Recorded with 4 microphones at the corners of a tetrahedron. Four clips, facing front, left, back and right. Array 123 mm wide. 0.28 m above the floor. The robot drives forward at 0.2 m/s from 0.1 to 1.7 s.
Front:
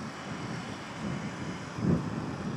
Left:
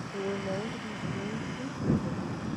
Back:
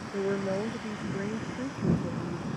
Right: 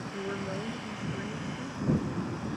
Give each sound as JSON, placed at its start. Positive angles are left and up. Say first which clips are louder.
{"t": 0.1, "sound": "a woman speaking", "louder": "left 3 dB, back 10 dB", "azimuth_deg": 170}